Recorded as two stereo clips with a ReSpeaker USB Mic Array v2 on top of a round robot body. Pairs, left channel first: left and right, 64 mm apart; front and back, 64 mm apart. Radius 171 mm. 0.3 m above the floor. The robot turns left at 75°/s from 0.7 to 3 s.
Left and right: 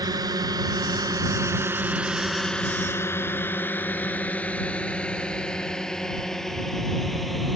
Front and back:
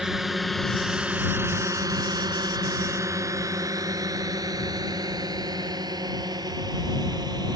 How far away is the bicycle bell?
I don't hear a bicycle bell.